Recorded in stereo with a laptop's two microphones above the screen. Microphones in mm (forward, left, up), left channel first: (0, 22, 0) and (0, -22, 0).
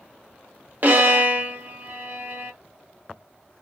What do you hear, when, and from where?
0.8 s a violin: 45° right (ahead or behind), 0.7 m